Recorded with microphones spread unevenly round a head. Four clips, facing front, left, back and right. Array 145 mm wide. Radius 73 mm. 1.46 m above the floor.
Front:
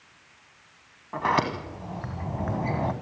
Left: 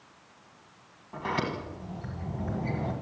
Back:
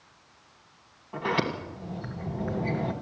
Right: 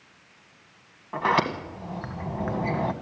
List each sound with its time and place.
1.1 s a sliding door: 55° right, 1.7 m